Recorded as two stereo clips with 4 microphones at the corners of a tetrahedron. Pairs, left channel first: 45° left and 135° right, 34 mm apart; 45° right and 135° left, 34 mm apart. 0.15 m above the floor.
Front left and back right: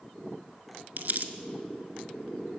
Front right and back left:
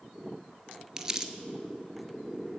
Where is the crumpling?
150° right, 0.6 m.